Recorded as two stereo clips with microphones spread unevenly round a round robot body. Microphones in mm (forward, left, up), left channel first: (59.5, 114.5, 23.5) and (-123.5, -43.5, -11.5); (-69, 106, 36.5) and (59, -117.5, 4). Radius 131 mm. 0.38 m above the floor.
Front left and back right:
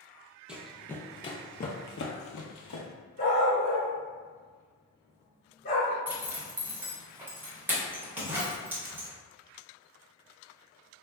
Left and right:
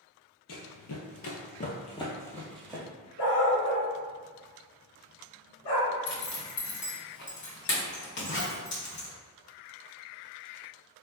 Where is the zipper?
150° left, 1.0 m.